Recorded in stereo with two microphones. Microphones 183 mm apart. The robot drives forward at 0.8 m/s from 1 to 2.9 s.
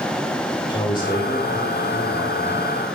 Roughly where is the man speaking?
Left.